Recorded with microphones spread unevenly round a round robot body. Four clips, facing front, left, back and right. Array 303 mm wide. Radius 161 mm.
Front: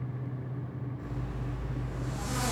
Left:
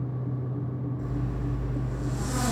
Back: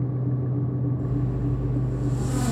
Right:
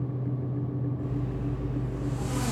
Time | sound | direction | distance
1.0 | a zipper | 155° left | 2.5 m